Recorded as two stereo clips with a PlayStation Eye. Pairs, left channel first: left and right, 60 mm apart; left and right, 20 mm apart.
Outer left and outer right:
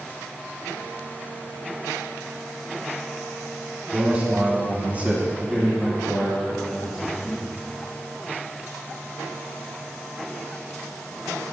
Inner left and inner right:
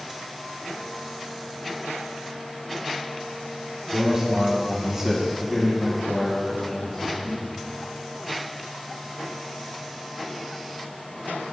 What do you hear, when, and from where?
3.9 s a man speaking: 25° right (ahead or behind), 1.9 m; by 7.5 s 5° left (ahead or behind), 3.5 m